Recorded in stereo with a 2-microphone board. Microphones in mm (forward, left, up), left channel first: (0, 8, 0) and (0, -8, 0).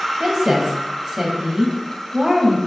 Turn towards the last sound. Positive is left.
turn(degrees=-45)  # may be behind; listen again after turning